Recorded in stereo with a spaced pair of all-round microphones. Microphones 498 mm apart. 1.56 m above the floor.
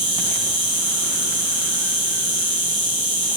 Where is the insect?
65° right (ahead or behind), 0.8 m.